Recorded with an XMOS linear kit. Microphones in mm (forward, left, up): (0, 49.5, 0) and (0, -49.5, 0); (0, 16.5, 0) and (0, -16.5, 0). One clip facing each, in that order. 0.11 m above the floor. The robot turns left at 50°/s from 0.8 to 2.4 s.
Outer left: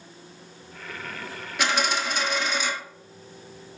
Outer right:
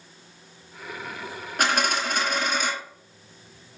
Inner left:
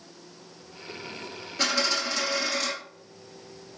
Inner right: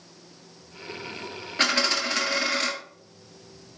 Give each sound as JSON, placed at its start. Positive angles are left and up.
{"t": 1.6, "sound": "a dropped coin", "azimuth_deg": -65, "distance_m": 0.9}